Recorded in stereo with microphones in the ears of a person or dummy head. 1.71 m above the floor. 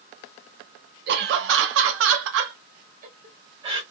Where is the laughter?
50° right (ahead or behind), 1.1 m; by 3.8 s 30° right (ahead or behind), 1.1 m.